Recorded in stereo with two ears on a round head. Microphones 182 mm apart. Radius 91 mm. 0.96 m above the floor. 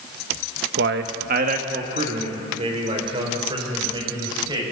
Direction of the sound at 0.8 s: 55° right (ahead or behind).